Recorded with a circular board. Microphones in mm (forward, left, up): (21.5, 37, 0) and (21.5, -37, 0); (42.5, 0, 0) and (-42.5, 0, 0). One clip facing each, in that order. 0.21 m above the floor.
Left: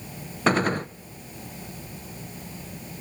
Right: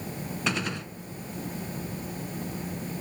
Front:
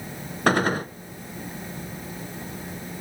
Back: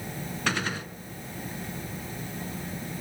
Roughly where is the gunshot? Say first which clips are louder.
Left 10 dB, front 10 dB; ahead left.